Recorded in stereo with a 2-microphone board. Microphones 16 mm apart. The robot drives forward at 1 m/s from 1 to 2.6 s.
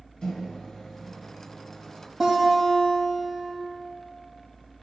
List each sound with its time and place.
0.2 s a microwave: 40° left (ahead or behind), 1.2 m; by 2.1 s 35° left (ahead or behind), 1.4 m
2.2 s a guitar: 5° right (ahead or behind), 4 m